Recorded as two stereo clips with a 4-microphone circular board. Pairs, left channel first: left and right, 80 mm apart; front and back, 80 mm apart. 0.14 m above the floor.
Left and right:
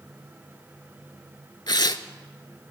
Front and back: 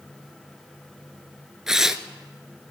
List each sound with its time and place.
1.7 s tearing paper: 100° left, 0.5 m